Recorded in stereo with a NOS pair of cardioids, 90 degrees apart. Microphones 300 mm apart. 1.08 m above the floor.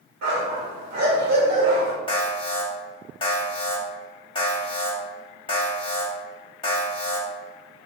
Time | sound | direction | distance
0.2 | a dog barking | 70° right | 1.5 m
2.1 | an alarm | 20° left | 1.1 m